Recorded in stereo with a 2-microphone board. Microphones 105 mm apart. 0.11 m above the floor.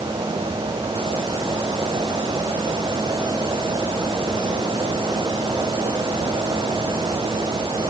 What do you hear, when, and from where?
Only background noise.